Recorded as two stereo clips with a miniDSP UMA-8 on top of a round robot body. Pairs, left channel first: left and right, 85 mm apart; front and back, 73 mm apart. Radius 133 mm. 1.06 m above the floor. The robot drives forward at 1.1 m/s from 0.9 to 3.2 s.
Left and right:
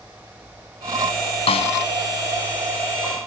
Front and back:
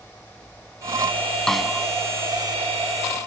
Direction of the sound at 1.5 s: 85° left.